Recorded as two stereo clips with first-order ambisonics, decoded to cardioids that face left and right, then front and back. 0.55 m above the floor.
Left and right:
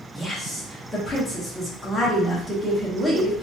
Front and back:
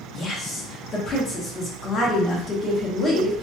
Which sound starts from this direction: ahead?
A woman speaking, at 0.1 s.